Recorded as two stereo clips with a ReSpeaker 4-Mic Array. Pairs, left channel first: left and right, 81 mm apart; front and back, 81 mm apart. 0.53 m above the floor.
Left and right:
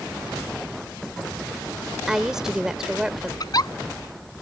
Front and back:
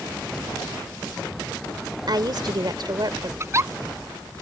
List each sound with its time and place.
2.1 s a woman speaking: 170° right
3.4 s a giggle: 125° left